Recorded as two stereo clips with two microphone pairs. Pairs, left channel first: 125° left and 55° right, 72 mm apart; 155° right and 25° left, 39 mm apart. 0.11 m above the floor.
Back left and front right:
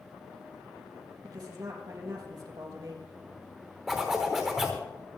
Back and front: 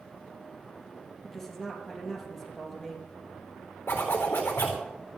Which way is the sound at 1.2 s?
70° right.